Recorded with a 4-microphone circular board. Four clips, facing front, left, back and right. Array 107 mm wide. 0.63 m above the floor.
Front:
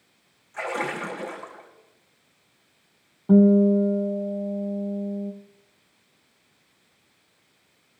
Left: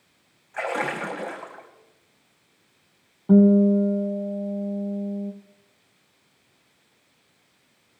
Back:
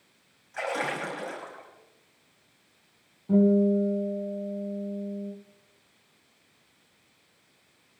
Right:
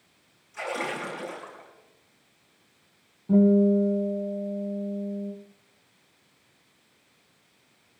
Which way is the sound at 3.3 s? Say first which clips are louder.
Left 3 dB, front 5 dB; 45° left.